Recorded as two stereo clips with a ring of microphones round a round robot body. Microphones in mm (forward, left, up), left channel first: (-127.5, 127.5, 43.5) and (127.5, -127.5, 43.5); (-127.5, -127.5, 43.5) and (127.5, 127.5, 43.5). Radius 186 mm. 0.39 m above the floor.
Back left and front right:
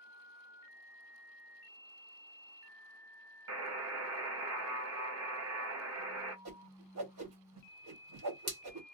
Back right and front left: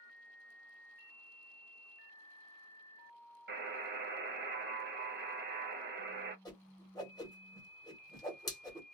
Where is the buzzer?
10° right, 1.3 m.